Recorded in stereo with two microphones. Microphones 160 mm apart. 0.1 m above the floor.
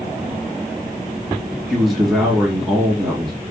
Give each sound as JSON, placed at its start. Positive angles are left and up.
{"t": 1.7, "sound": "a man speaking", "side_deg": 0, "distance_m": 2.5}